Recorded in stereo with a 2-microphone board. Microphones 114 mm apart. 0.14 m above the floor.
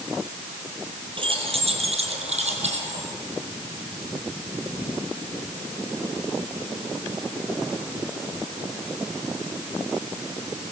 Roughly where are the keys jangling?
Right.